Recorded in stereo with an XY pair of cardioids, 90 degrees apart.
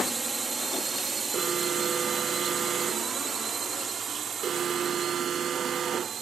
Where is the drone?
30° right; by 6.2 s 60° right.